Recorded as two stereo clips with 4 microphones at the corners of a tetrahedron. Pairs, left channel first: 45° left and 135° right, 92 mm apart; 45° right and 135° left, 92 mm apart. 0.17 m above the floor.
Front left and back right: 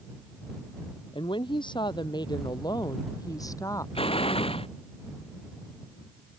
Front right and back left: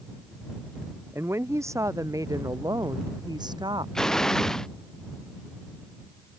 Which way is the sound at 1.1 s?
70° left.